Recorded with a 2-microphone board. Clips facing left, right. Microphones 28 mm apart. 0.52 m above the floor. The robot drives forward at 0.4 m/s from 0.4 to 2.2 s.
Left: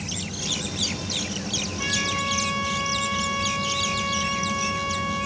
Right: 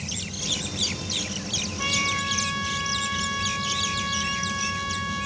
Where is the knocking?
I don't hear knocking.